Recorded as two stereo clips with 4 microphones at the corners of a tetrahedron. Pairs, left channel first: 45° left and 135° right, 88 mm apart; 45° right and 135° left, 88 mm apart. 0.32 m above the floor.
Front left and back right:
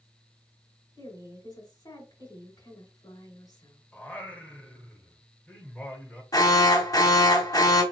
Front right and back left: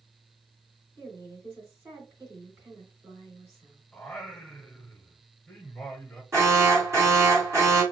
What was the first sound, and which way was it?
A woman speaking, 75° left.